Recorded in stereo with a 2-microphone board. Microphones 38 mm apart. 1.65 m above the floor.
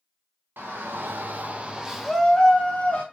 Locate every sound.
0.6 s a shout: 80° right, 0.8 m; by 3.0 s 30° left (ahead or behind), 0.9 m